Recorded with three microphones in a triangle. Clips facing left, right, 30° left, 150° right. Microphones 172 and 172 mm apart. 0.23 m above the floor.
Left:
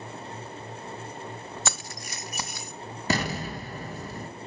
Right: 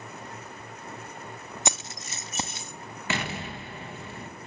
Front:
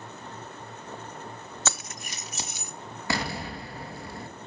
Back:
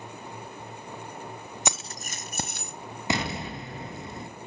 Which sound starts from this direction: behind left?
An explosion, at 3.1 s.